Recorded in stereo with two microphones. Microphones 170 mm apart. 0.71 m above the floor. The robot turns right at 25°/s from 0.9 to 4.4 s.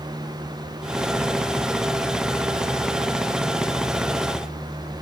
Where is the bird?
No bird in this recording.